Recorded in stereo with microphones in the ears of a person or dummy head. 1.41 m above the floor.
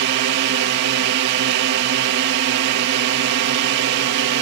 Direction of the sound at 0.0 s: 60° right (ahead or behind).